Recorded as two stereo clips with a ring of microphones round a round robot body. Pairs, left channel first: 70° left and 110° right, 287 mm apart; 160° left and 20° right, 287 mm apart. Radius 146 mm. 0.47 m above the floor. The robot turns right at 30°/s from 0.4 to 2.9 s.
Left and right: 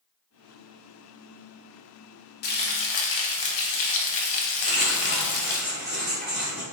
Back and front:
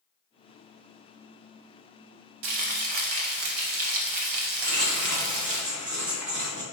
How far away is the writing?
About 1.8 m.